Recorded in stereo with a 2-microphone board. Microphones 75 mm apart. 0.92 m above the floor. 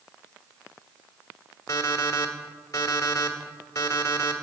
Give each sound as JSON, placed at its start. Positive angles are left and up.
{"t": 1.7, "sound": "an alarm clock", "side_deg": 45, "distance_m": 1.1}